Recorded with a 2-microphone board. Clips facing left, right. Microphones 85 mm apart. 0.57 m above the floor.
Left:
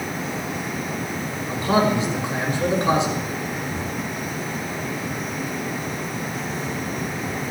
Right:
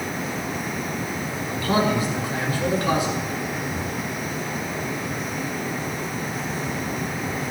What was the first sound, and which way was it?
A man speaking, 25° left (ahead or behind).